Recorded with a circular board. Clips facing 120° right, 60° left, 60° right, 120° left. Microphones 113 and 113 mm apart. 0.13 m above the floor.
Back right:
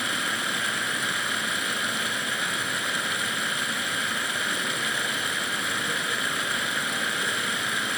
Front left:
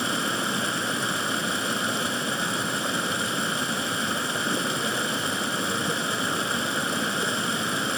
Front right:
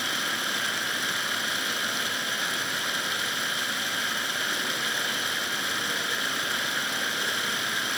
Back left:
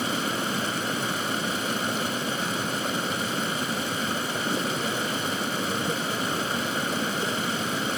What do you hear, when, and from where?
0.0 s running water: 100° left, 1.8 m